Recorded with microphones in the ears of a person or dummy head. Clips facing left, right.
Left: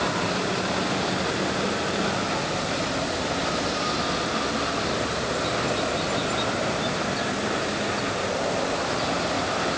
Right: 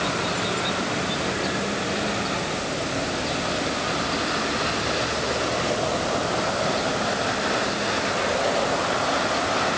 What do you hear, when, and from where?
Only background noise.